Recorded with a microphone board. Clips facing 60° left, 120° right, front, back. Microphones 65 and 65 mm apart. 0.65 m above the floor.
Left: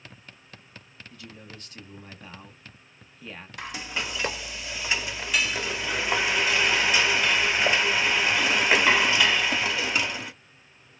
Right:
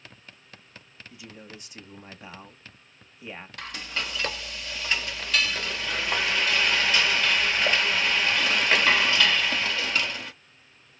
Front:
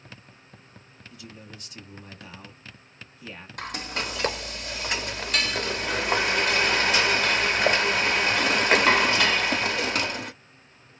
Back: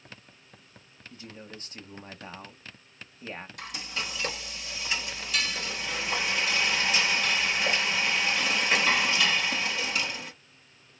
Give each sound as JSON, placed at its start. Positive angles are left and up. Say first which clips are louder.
{"t": 1.1, "sound": "a man speaking", "louder": "right 1 dB, back 1 dB", "azimuth_deg": 175, "distance_m": 0.9}
{"t": 3.6, "sound": "frying", "louder": "left 2 dB, front 8 dB", "azimuth_deg": -15, "distance_m": 0.5}